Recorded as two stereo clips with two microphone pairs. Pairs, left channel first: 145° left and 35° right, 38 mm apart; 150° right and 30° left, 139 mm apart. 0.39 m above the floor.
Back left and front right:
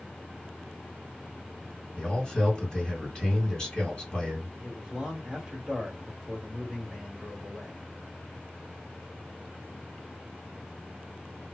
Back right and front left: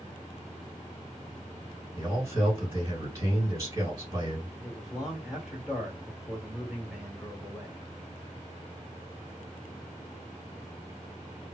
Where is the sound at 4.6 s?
50° right, 1.1 m.